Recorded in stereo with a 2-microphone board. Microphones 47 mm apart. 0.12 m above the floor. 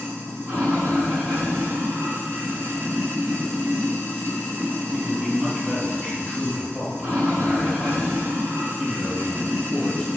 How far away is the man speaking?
About 1.9 m.